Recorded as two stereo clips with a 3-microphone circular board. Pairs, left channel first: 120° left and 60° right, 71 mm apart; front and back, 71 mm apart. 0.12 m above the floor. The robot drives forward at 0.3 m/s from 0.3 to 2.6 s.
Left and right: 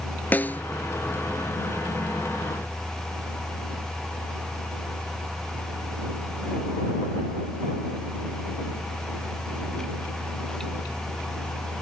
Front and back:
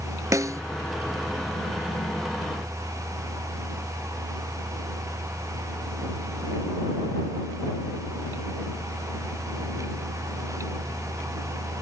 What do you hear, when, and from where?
0.3 s a snare drum: 175° left